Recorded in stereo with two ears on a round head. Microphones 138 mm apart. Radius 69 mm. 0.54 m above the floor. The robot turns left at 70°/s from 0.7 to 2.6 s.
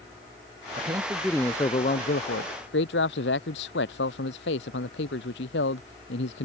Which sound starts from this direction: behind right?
A man speaking, at 0.8 s.